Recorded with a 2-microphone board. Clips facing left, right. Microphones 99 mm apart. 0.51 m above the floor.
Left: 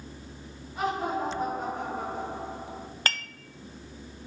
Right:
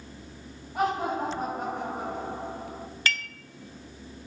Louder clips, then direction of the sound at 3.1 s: Right 1 dB; 45° left (ahead or behind).